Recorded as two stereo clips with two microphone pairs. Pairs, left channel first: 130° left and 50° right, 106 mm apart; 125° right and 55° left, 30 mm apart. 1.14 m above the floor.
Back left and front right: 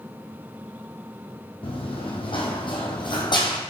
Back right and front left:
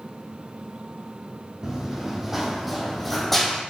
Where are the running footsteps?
120° left, 2 m; by 3.6 s 155° left, 1.9 m.